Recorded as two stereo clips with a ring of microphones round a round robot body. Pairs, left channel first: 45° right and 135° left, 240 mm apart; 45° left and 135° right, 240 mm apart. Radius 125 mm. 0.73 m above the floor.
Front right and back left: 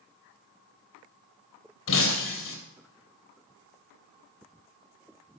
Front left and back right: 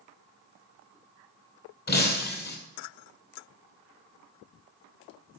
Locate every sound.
1.9 s breaking glass: 5° right, 3.5 m